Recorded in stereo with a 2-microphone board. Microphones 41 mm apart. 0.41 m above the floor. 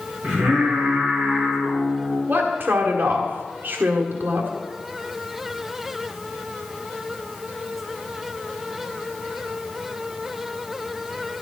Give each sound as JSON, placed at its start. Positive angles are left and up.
{"t": 0.2, "sound": "singing", "side_deg": -15, "distance_m": 5.5}
{"t": 2.3, "sound": "a woman speaking", "side_deg": -45, "distance_m": 1.7}